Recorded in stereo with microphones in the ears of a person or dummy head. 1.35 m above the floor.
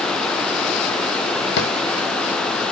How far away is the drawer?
About 2.0 m.